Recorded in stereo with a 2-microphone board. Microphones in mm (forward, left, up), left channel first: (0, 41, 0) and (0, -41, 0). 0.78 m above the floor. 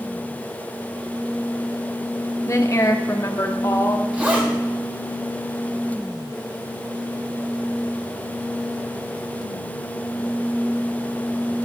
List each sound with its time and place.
2.5 s a woman speaking: 35° left (ahead or behind), 1.2 m; by 4.0 s 45° left (ahead or behind), 2 m
4.1 s a zipper: 15° right (ahead or behind), 4.5 m